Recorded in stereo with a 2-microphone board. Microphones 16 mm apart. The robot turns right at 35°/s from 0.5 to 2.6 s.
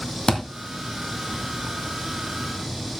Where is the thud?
65° left (ahead or behind), 2 m.